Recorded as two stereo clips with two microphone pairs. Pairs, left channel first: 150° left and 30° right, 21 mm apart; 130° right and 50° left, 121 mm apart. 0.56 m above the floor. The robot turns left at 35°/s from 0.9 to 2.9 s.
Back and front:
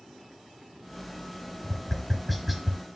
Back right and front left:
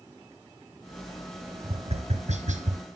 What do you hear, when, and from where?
1.6 s tapping: 90° left, 2 m; by 2.8 s 50° left, 2 m